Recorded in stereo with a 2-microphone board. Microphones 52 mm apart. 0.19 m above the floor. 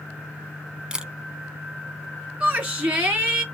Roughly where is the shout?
Centre.